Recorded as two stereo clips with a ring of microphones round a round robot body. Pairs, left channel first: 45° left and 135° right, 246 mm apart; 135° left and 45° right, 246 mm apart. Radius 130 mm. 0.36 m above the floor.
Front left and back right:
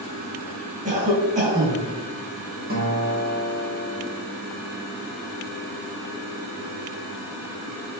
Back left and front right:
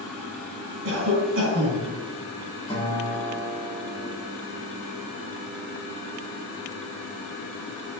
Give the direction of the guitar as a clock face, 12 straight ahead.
5 o'clock.